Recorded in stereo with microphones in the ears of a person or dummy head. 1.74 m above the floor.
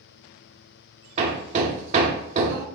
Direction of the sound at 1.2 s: 40° right (ahead or behind).